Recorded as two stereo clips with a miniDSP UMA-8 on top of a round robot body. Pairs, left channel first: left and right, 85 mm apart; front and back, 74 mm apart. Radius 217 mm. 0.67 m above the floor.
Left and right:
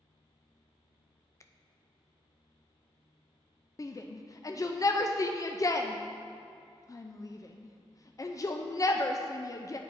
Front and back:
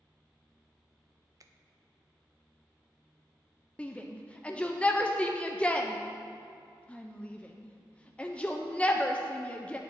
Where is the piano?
I don't hear a piano.